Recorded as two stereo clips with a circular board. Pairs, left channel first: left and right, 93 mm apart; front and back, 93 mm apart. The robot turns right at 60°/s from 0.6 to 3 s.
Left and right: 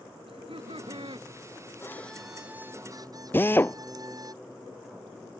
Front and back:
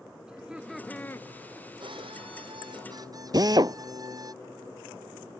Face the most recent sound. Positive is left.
turn(degrees=150)